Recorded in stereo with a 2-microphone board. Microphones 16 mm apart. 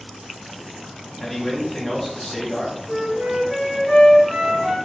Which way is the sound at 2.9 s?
10° left (ahead or behind).